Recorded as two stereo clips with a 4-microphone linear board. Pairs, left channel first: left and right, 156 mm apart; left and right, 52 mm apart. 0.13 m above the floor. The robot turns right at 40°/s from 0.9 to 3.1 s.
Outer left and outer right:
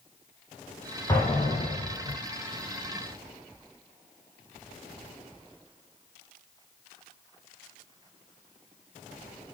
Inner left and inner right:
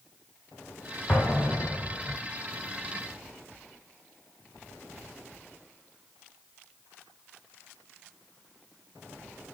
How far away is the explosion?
About 3.5 m.